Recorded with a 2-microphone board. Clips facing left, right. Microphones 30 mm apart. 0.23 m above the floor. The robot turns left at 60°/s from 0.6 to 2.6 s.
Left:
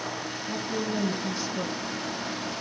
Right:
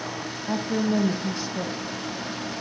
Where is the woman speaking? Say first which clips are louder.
Right 6 dB; 90° right, 1.8 m; by 1.8 s 160° right, 1.8 m.